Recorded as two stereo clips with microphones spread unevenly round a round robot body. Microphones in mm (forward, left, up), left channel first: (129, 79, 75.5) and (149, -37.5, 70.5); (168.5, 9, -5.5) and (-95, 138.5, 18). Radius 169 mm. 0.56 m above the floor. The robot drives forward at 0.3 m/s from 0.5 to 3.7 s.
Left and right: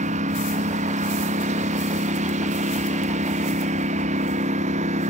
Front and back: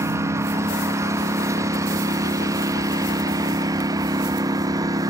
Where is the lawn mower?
125° right.